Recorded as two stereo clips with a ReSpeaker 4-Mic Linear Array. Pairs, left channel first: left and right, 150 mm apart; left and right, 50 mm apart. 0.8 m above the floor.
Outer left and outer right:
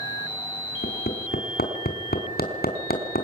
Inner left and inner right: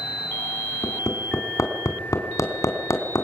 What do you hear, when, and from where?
0.8 s hammering: 85° left, 3.5 m